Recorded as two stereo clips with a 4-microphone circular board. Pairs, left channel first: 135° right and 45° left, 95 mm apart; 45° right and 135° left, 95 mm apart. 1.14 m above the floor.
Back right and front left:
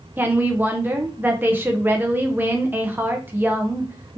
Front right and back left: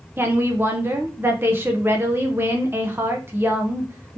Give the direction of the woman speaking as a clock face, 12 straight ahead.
9 o'clock.